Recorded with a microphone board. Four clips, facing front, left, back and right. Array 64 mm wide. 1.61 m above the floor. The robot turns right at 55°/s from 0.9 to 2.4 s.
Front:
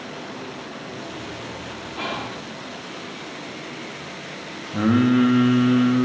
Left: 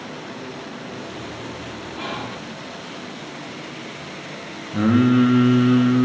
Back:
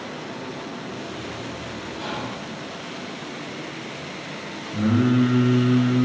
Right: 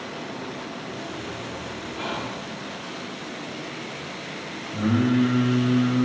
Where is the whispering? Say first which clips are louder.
Left 1 dB, front 3 dB; 5° left, 3 m; by 2.4 s 25° left, 3 m.